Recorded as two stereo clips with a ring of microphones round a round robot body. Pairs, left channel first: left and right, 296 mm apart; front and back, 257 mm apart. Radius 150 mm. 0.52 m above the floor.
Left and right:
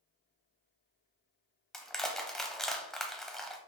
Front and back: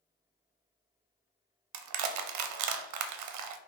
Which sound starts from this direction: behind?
Crushing, at 1.7 s.